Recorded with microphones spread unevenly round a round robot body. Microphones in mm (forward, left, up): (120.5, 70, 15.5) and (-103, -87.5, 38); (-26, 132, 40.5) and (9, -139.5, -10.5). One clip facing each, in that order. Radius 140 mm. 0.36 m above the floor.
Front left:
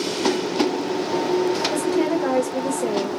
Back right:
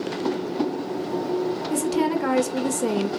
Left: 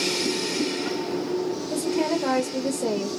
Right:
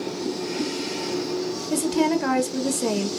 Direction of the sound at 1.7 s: 90° right.